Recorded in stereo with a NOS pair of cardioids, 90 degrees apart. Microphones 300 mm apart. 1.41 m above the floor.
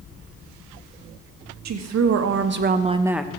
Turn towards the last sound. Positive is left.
turn(degrees=5)